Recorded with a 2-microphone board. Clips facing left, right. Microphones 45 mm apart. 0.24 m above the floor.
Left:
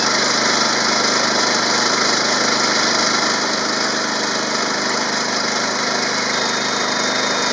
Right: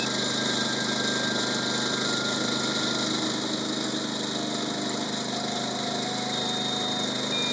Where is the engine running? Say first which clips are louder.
Left 11 dB; 80° left.